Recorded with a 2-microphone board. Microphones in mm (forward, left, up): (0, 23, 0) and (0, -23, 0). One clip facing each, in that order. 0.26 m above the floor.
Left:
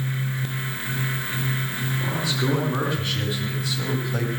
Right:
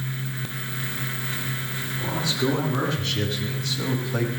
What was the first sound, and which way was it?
A man speaking, 15° left (ahead or behind).